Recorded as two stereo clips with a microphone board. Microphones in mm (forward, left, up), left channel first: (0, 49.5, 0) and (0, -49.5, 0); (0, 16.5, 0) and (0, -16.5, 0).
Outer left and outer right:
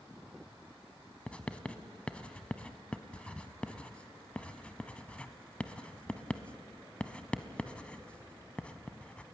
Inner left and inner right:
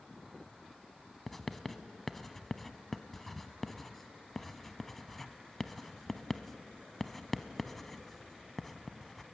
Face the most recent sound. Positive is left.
turn(degrees=10)  # may be behind; listen again after turning